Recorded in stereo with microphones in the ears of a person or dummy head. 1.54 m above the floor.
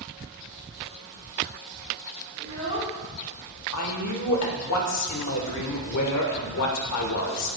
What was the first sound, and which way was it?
A child speaking, 15° left (ahead or behind).